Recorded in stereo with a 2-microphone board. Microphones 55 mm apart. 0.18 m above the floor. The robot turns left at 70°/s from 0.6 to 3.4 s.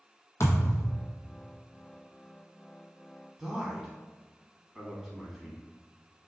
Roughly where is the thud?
Left.